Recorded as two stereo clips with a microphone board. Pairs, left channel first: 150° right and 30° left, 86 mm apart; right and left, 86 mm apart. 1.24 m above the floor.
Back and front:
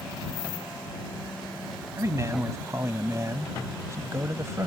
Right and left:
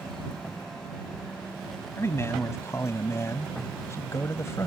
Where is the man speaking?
30° right.